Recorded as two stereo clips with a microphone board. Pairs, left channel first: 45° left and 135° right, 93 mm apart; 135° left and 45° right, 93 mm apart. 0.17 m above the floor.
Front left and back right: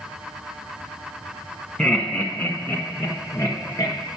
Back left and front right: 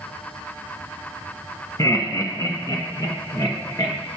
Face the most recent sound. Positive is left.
turn(degrees=95)